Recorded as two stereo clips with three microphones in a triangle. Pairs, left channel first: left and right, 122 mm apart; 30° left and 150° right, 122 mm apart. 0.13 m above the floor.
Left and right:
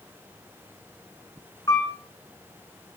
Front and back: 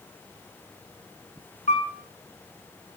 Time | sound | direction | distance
1.7 | a piano | 30° left | 2 m